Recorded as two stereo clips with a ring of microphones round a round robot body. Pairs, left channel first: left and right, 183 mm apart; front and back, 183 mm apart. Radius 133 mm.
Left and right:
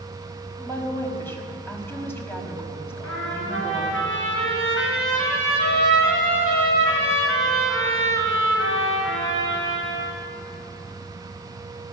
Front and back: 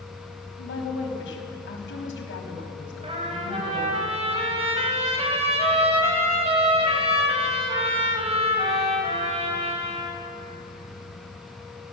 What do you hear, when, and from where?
0.6 s a woman speaking: 10° left, 5.5 m
3.0 s a trumpet: 120° left, 5.5 m